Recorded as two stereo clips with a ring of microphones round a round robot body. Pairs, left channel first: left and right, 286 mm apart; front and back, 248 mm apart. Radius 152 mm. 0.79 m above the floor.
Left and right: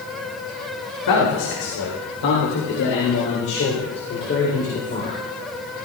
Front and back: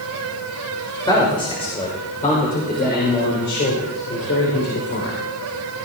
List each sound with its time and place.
1.1 s a man speaking: 70° left, 4 m; by 5.2 s 25° left, 3.5 m